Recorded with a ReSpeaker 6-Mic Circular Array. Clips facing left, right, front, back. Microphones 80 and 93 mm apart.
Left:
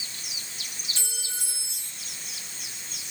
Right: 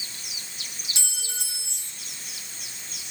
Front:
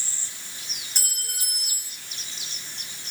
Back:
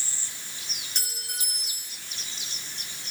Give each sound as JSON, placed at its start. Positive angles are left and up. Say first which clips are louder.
{"t": 0.9, "sound": "a clink", "louder": "right 1 dB, even", "azimuth_deg": -85, "distance_m": 10.0}